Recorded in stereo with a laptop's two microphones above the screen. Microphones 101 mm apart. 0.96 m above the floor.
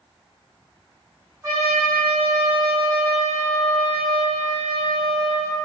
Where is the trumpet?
25° right (ahead or behind), 1.9 m.